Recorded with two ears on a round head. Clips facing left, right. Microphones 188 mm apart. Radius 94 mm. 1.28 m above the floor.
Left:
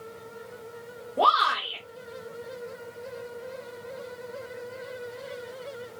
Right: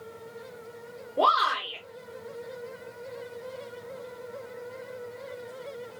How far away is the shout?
About 1.4 m.